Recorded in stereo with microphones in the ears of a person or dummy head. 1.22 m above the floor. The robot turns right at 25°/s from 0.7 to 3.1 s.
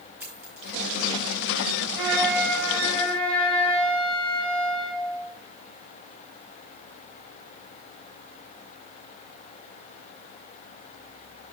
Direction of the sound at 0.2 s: 10° right (ahead or behind).